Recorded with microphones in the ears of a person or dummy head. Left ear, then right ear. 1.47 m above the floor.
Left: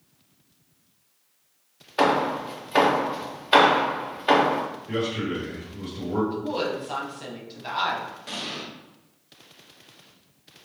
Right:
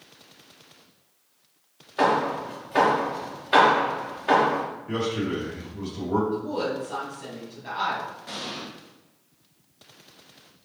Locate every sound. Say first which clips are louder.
2.0 s hammering: left 1 dB; 20° left (ahead or behind), 0.7 m
4.9 s a man speaking: right 1 dB; 75° right (ahead or behind), 1.7 m
6.3 s a woman speaking: even; 35° left (ahead or behind), 1.2 m
8.3 s an explosion: left 1 dB; 5° left (ahead or behind), 0.8 m